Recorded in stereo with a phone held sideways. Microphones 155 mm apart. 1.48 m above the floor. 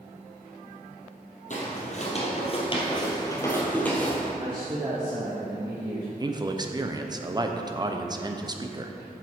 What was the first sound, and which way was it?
Footsteps, 55° left (ahead or behind).